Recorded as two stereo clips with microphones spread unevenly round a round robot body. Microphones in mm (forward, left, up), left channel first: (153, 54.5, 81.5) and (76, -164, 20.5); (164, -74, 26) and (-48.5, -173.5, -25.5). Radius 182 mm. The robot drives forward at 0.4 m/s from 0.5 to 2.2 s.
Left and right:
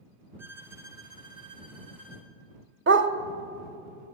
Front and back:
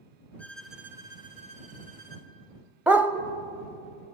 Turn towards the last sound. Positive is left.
turn(degrees=-65)